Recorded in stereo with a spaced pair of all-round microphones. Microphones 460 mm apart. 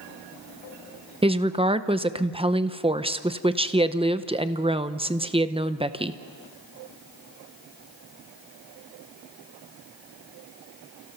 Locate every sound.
1.2 s a woman speaking: 10° right (ahead or behind), 0.7 m